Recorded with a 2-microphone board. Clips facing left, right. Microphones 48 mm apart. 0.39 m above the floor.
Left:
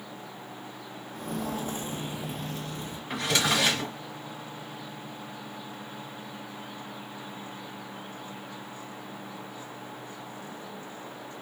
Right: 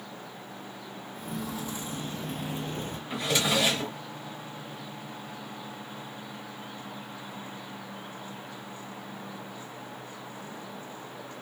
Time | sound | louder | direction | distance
1.1 | footsteps | left 3 dB | 60° left (ahead or behind) | 1.1 m
3.1 | a drawer | left 1 dB | 65° left (ahead or behind) | 2.5 m